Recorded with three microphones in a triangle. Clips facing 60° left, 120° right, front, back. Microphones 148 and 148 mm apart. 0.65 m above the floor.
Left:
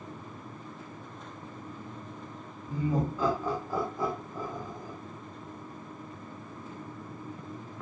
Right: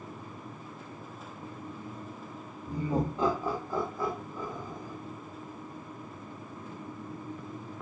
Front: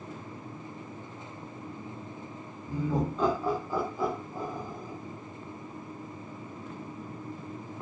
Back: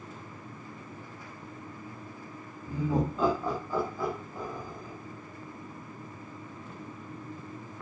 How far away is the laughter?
About 0.9 m.